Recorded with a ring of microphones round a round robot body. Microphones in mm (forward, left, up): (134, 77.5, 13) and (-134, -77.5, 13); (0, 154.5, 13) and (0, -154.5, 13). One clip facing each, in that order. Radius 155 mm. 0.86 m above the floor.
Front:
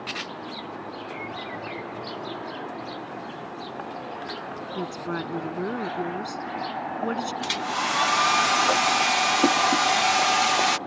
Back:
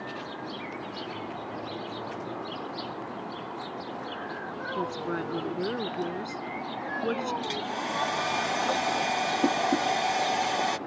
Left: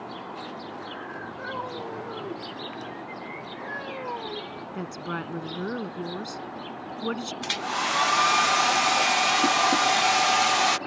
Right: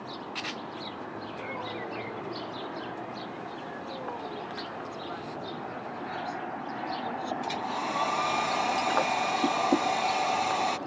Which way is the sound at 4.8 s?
100° left.